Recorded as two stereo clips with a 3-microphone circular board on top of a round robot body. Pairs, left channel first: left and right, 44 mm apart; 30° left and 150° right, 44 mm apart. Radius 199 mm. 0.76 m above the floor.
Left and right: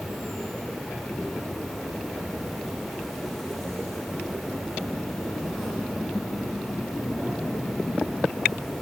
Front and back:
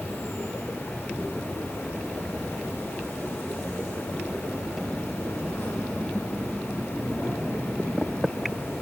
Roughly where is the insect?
Ahead.